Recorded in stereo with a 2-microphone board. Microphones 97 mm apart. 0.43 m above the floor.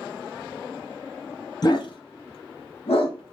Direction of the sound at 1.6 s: 45° left (ahead or behind).